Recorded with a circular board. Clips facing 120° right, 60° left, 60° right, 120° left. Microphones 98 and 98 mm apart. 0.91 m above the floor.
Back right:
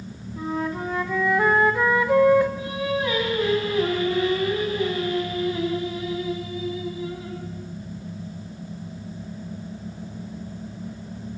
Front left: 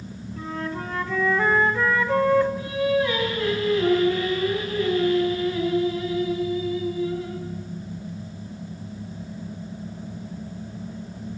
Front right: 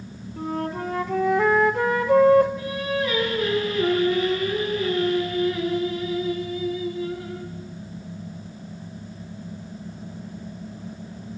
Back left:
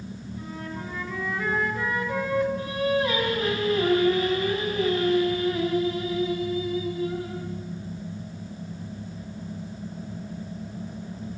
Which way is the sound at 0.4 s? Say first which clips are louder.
Back right 4 dB, front right 10 dB; 40° right.